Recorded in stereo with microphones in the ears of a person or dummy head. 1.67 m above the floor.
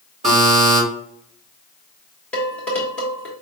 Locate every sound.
0.2 s a buzzer: 35° right (ahead or behind), 2.5 m
2.3 s dishes clattering: 10° left (ahead or behind), 1.5 m